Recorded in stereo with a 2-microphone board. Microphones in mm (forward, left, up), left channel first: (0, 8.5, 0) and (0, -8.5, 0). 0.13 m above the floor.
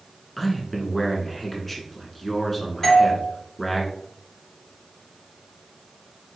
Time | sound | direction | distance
0.4 | a man speaking | 10° left (ahead or behind) | 1.2 m
2.8 | a doorbell | 15° left (ahead or behind) | 1.5 m